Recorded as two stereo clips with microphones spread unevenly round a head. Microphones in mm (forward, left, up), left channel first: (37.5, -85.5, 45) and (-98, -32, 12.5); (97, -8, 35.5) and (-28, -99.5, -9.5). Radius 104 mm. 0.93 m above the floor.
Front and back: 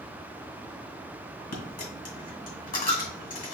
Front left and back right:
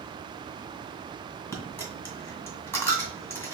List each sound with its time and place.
1.5 s a dropped coin: 35° right, 2.0 m